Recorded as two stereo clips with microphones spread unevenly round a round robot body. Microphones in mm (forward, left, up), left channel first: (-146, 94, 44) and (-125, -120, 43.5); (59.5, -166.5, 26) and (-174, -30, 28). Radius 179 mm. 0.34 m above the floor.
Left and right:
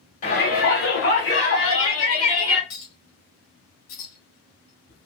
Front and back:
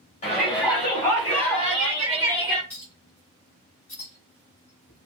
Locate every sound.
0.2 s a shout: 40° left, 1.7 m; by 2.6 s 65° left, 2.5 m
2.7 s a clink: 55° left, 2 m